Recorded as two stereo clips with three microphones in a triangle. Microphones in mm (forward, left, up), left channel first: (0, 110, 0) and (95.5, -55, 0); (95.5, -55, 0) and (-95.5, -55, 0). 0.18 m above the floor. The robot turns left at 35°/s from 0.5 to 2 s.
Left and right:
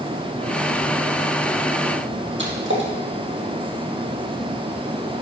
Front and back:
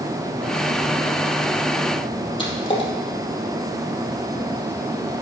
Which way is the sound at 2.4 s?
65° right.